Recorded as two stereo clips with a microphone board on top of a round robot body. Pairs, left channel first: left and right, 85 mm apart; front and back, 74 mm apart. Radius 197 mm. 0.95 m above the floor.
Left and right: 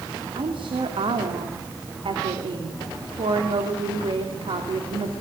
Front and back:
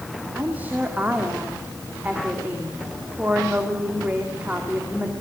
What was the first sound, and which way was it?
A woman speaking, 110° right.